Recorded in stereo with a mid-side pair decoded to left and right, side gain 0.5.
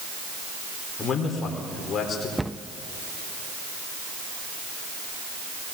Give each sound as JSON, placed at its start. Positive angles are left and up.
{"t": 1.0, "sound": "a man speaking", "azimuth_deg": 45, "distance_m": 4.0}
{"t": 2.4, "sound": "a cupboard door", "azimuth_deg": -5, "distance_m": 0.5}